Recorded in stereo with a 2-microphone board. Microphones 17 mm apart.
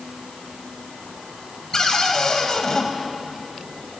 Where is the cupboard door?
40° left (ahead or behind), 2 m.